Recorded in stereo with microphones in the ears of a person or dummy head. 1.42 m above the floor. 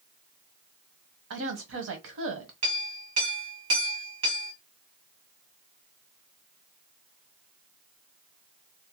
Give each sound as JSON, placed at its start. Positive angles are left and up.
{"t": 1.3, "sound": "a woman speaking", "side_deg": -80, "distance_m": 0.9}
{"t": 2.6, "sound": "a clink", "side_deg": -30, "distance_m": 0.9}